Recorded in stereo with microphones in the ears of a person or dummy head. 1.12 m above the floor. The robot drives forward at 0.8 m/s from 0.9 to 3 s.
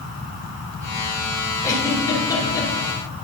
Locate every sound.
1.6 s a giggle: 15° left (ahead or behind), 3 m; by 2.7 s 25° left (ahead or behind), 2 m